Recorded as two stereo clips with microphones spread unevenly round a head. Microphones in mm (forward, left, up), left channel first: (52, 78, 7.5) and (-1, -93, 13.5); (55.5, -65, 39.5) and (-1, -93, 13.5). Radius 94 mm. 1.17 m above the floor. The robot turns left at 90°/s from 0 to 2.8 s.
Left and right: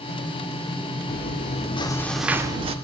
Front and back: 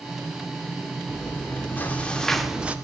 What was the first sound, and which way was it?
Chewing, 80° left.